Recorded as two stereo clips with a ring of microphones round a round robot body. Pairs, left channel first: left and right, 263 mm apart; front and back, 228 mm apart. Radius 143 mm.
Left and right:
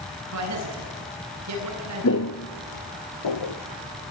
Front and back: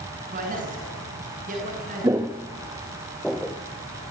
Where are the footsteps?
110° left, 0.8 m; by 3.5 s 90° left, 2.5 m.